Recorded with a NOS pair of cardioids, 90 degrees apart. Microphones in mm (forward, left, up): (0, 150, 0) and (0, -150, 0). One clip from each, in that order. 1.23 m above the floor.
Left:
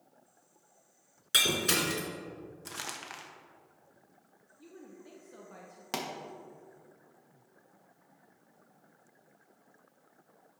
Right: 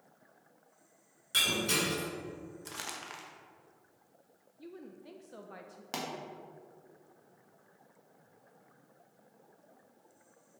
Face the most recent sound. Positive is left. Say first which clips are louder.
# left 2 dB
turn(degrees=20)